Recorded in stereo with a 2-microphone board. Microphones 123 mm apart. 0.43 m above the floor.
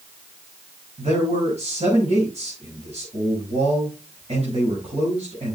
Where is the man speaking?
60° right (ahead or behind), 4.5 m.